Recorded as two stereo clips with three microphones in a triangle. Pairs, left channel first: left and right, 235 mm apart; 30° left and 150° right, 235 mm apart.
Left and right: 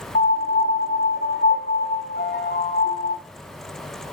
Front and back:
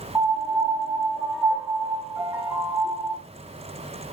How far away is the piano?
About 0.7 m.